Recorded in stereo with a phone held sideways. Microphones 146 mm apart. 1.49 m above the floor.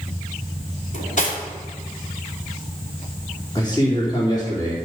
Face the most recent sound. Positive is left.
turn(degrees=30)  # may be behind; listen again after turning